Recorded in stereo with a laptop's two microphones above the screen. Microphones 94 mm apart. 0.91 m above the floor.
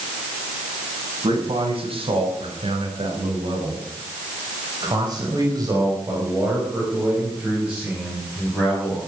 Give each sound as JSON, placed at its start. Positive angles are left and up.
{"t": 1.2, "sound": "a man speaking", "side_deg": -85, "distance_m": 6.0}